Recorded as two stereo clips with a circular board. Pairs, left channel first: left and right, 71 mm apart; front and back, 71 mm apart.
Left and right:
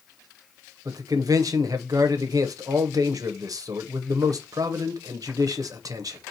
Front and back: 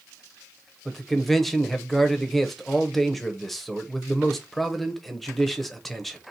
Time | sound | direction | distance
0.8 | a man speaking | 85° right | 0.8 m